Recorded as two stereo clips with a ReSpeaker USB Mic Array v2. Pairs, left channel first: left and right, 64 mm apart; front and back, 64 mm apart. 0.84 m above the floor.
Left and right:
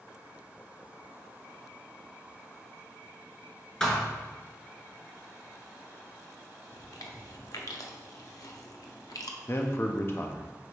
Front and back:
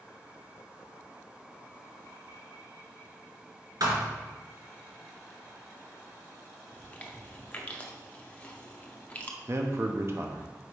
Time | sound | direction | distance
3.8 | a thud | 170° left | 1.7 m
6.7 | chewing | 65° left | 0.7 m
9.5 | a man speaking | 140° left | 0.7 m